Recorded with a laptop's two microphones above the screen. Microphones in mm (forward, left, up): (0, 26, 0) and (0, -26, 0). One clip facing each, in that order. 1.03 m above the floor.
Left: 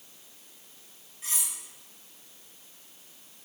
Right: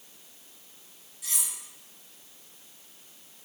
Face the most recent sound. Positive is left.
turn(degrees=35)  # may be behind; listen again after turning